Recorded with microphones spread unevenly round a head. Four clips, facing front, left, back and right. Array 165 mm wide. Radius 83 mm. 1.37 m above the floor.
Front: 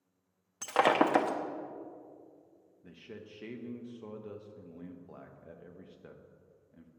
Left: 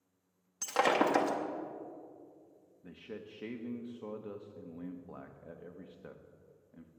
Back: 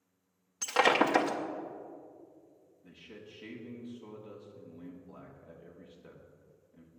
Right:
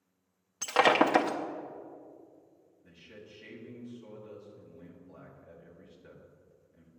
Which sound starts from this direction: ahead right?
Breaking glass, at 0.6 s.